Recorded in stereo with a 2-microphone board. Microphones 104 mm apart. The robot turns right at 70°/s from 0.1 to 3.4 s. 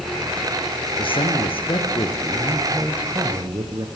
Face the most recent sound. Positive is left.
turn(degrees=-125)